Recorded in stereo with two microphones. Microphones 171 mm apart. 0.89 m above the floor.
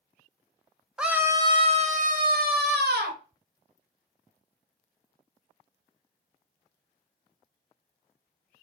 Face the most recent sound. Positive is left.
turn(degrees=-75)  # may be behind; listen again after turning